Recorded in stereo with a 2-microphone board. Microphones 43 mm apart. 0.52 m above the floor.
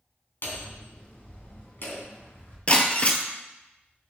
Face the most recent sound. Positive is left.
turn(degrees=30)  # may be behind; listen again after turning